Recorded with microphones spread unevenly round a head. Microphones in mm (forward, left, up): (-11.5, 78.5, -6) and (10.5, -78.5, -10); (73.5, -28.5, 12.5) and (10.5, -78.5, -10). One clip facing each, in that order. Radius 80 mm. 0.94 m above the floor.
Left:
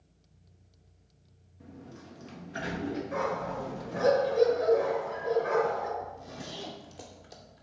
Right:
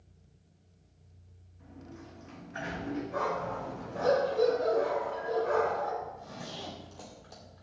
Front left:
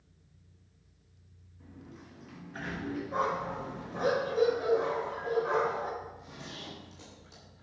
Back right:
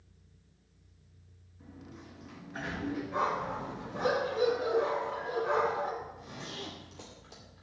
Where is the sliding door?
140° left, 1.2 m.